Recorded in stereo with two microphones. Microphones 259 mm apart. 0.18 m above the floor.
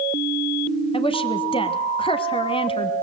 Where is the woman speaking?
20° left (ahead or behind), 1.2 m.